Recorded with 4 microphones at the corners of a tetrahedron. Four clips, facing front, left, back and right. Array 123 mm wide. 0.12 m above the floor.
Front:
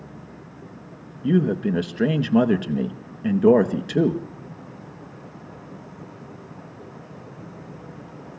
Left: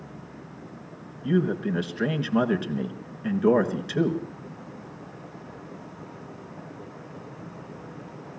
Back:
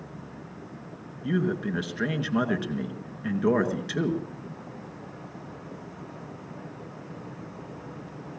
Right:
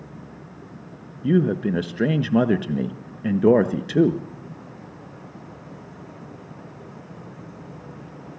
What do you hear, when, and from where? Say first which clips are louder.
1.2 s a man speaking: right 4 dB, front 7 dB; 55° right, 1.8 m